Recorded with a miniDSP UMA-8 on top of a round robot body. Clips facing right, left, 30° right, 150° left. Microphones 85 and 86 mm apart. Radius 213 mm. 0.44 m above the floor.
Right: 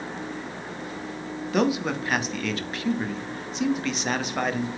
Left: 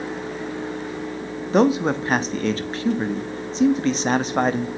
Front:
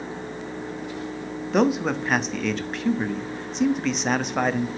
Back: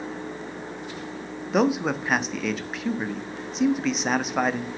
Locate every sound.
1.5 s a man speaking: 65° left, 1.4 m